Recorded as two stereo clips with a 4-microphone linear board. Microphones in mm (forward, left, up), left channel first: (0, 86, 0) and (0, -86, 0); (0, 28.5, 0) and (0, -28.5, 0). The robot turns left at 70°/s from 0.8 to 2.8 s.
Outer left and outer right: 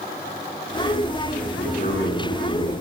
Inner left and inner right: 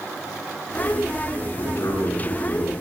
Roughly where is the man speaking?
Behind left.